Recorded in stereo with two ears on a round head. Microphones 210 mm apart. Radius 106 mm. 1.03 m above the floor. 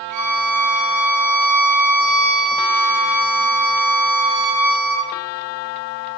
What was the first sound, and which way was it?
A violin, 80° right.